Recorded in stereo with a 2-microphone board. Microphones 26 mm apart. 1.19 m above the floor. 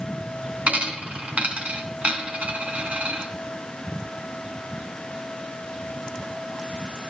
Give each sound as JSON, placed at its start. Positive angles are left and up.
{"t": 0.7, "sound": "a dropped coin", "side_deg": -55, "distance_m": 2.5}